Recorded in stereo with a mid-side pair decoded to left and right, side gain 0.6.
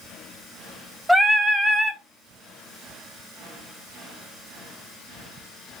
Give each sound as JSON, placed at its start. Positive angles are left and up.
{"t": 1.1, "sound": "singing", "azimuth_deg": -5, "distance_m": 0.8}